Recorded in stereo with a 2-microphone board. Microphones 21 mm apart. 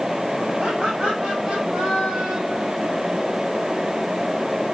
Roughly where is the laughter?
Right.